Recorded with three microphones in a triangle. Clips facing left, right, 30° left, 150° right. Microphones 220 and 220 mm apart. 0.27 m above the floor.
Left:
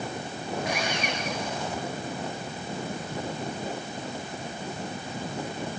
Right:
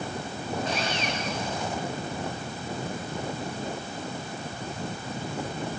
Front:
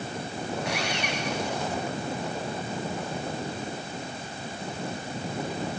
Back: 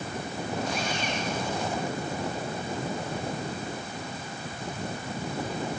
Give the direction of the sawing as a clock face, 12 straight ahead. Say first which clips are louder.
Left 1 dB, even; 12 o'clock.